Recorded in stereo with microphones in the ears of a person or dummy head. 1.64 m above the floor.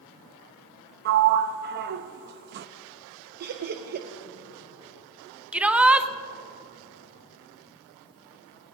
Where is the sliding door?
55° right (ahead or behind), 0.6 m.